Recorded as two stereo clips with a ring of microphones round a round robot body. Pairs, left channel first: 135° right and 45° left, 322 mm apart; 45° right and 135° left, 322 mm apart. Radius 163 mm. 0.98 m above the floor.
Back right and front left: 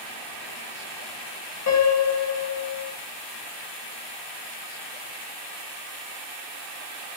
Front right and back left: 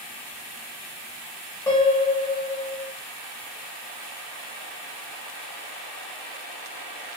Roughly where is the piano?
Behind right.